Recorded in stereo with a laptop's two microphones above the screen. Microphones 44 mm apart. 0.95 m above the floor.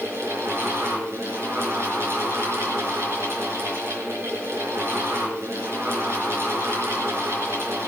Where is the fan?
80° right, 4 m.